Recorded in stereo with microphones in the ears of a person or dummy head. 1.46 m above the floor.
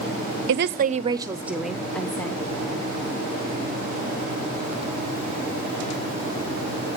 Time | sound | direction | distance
0.5 | a woman speaking | 60° right (ahead or behind) | 0.5 m